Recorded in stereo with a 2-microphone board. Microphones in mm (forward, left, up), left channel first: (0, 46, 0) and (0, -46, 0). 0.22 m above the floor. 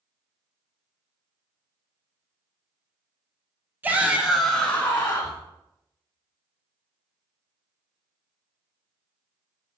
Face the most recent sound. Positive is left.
turn(degrees=30)  # may be behind; listen again after turning